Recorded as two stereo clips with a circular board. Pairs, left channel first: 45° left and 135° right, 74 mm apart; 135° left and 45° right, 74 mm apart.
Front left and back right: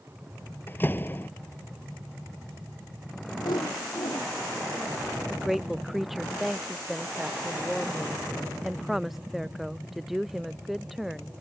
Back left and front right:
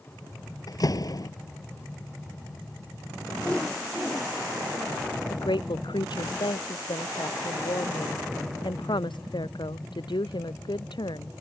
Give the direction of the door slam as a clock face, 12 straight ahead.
8 o'clock.